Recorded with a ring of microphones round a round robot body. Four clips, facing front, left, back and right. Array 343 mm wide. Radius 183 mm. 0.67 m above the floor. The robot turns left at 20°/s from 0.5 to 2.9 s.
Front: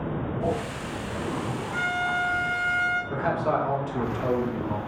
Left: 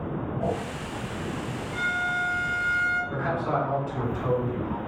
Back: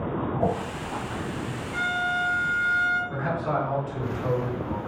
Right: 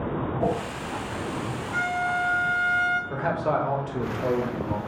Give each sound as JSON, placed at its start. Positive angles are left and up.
{"t": 0.4, "sound": "a whoosh", "azimuth_deg": -160, "distance_m": 0.7}
{"t": 1.7, "sound": "a violin", "azimuth_deg": -90, "distance_m": 1.2}
{"t": 3.1, "sound": "a man speaking", "azimuth_deg": -60, "distance_m": 1.8}